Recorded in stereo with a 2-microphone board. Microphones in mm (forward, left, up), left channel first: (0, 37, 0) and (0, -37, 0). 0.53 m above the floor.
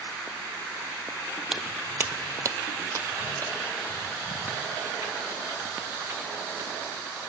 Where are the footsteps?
10° right (ahead or behind), 0.6 m; by 7.0 s 35° right (ahead or behind), 3 m.